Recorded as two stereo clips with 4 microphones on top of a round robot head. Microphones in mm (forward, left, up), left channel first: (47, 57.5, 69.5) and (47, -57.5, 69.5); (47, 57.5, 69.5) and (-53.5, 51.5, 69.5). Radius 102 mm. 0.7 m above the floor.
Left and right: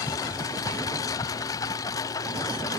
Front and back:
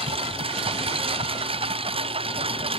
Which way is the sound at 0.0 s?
155° left.